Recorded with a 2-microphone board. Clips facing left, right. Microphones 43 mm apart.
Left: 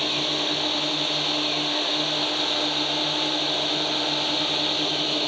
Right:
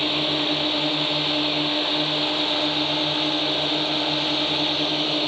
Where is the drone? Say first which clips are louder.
Right 2 dB; 15° right (ahead or behind); by 5.3 s 10° right (ahead or behind).